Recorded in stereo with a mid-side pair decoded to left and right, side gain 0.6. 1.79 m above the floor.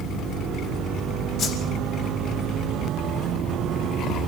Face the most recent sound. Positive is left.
turn(degrees=60)